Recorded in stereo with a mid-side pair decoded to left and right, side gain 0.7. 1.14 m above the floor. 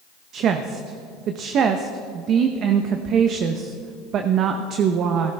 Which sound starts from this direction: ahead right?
A woman speaking, at 0.3 s.